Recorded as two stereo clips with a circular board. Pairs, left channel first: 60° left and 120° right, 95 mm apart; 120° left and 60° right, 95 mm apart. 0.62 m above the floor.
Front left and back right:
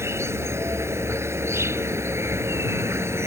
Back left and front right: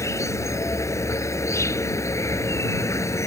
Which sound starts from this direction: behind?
An insect, at 0.0 s.